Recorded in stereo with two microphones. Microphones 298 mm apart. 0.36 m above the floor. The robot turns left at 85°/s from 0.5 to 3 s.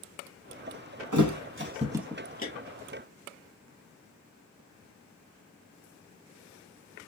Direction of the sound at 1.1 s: 80° right.